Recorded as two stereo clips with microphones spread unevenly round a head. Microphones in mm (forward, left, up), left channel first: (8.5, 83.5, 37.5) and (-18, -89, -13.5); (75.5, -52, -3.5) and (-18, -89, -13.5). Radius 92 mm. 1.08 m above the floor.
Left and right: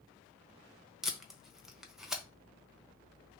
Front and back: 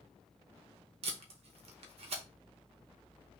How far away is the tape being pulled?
About 0.7 m.